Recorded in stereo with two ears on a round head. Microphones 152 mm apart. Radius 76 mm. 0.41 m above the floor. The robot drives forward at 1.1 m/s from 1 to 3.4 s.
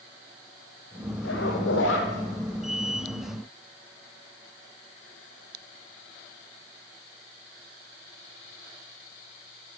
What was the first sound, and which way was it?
A zipper, 70° left (ahead or behind).